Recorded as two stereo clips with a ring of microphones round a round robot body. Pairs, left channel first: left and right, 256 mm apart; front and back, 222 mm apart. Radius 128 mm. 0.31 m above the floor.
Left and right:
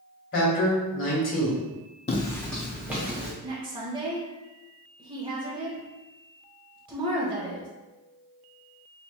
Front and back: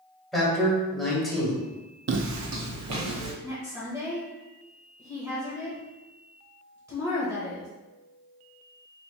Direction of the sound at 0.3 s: 90° left.